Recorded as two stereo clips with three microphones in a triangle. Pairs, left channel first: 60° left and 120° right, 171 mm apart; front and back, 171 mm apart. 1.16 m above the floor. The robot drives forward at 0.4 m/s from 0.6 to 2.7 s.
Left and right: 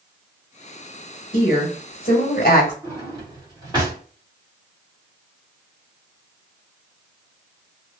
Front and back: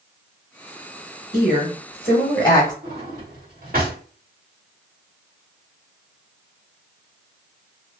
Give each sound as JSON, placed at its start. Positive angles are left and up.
{"t": 1.3, "sound": "a woman speaking", "azimuth_deg": 40, "distance_m": 1.2}
{"t": 2.8, "sound": "a drawer", "azimuth_deg": -175, "distance_m": 1.4}